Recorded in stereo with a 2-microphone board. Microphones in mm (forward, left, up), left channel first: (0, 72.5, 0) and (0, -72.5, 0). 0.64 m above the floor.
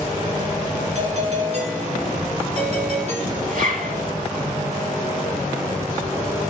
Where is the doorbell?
45° right (ahead or behind), 3 m.